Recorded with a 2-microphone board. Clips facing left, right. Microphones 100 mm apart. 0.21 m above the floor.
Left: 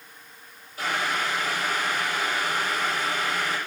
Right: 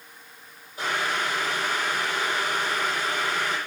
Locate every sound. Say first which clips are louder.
0.8 s boiling: even; 20° right (ahead or behind), 7.5 m